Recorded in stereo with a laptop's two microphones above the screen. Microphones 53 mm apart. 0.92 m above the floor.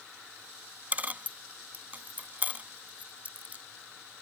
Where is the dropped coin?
30° right (ahead or behind).